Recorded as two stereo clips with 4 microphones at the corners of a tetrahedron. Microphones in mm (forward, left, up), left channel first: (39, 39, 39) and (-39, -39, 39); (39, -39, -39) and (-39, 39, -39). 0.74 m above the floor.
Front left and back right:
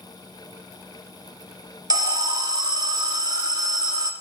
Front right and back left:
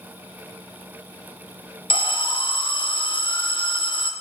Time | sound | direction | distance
1.9 | an alarm | 85° right | 0.8 m